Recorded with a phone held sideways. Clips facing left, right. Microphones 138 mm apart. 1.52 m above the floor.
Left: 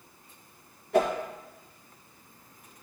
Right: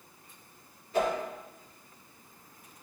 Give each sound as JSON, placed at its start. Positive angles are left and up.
{"t": 0.9, "sound": "a whoosh", "side_deg": 75, "distance_m": 1.6}